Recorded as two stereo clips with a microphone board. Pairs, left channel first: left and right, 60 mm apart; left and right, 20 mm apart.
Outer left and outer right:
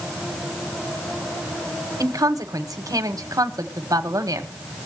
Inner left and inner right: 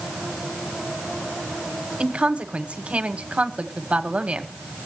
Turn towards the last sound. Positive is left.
turn(degrees=-80)